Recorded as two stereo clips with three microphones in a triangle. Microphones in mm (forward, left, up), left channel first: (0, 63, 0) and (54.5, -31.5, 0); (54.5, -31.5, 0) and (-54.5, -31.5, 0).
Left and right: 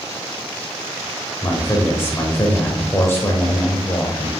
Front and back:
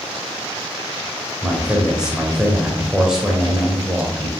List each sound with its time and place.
1.4 s a man speaking: 105° left, 0.9 m